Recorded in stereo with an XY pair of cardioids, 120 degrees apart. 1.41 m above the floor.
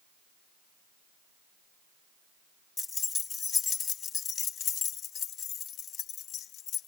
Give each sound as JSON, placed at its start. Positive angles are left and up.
{"t": 2.8, "sound": "keys jangling", "azimuth_deg": 25}